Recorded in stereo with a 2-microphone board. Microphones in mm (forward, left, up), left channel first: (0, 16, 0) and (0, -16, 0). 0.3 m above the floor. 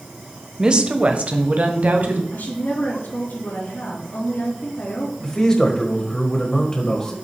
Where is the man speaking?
25° left (ahead or behind), 1.5 m.